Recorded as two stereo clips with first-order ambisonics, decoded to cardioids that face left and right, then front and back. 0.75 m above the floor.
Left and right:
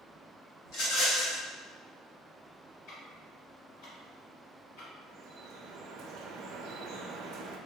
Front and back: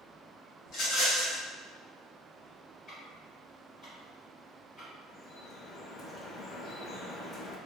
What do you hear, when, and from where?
0.7 s a rattle: 55° left, 1.4 m
2.9 s ticking: 70° left, 1.9 m
5.1 s dripping: 60° right, 0.5 m